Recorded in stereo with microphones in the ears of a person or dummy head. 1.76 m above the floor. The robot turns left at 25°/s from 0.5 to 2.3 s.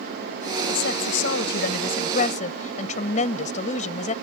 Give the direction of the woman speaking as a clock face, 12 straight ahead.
9 o'clock.